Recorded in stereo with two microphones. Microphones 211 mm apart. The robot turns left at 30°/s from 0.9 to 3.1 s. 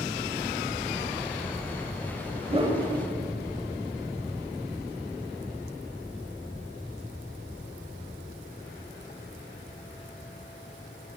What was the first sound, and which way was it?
A whoosh, 25° right (ahead or behind).